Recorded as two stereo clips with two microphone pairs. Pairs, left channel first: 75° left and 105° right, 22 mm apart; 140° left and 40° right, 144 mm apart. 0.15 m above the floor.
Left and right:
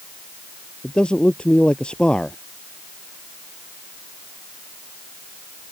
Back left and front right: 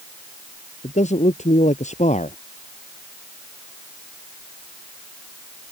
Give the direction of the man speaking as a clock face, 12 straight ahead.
8 o'clock.